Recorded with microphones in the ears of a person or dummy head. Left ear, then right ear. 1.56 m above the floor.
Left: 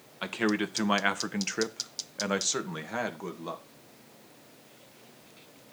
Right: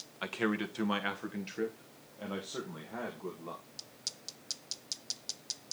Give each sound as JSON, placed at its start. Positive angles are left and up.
{"t": 0.2, "sound": "a man speaking", "side_deg": 5, "distance_m": 1.3}